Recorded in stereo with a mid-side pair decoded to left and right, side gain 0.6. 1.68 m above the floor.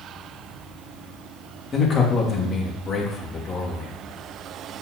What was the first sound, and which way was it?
A man speaking, 35° left.